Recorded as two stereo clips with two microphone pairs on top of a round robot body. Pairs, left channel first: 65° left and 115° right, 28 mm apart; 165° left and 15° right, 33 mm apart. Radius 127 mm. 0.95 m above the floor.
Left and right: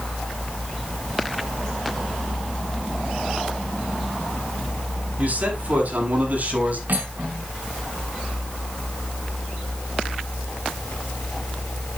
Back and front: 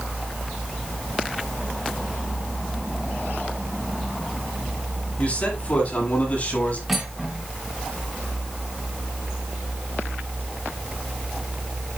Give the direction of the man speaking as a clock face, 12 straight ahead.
5 o'clock.